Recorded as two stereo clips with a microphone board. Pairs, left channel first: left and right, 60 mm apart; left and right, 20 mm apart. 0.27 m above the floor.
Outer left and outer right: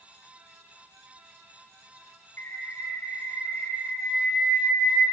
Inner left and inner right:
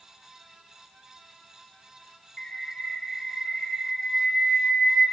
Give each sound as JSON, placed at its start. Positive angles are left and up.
{"t": 2.4, "sound": "a bird", "side_deg": 30, "distance_m": 0.7}